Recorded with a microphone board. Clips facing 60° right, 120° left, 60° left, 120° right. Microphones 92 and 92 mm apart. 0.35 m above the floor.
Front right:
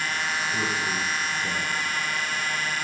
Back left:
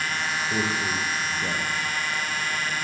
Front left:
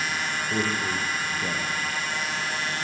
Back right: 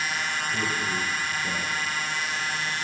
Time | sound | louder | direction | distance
0.5 | a man speaking | back left 1 dB, front left 4 dB | 75° left | 7.5 m